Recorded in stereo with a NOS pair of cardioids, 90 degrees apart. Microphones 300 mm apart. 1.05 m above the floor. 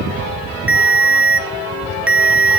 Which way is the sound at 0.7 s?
5° right.